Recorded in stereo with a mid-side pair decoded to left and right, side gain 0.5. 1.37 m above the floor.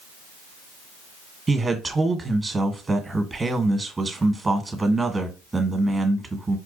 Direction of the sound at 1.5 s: 20° right.